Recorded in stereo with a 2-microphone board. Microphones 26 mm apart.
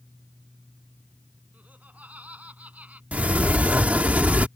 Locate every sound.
1.5 s laughter: 75° right (ahead or behind)
3.1 s a sliding door: 60° right (ahead or behind)